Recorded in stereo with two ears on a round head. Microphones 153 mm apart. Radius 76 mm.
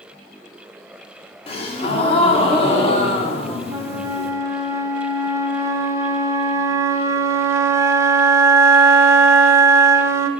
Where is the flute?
15° right (ahead or behind), 0.5 m.